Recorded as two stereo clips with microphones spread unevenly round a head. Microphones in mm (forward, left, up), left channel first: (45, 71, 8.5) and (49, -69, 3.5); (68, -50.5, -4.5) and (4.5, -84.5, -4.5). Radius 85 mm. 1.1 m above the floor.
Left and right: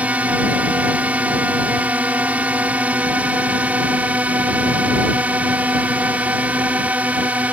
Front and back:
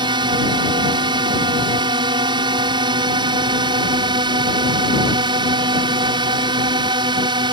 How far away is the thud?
No thud in this recording.